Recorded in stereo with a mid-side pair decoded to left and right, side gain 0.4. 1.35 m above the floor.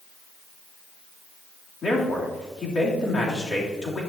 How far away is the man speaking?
About 3 m.